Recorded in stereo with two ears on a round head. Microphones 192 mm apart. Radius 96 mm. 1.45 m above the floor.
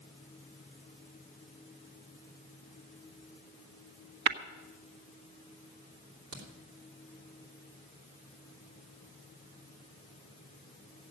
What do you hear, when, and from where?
4.3 s tapping: 55° right (ahead or behind), 1.2 m
6.3 s a crack: 60° right (ahead or behind), 3 m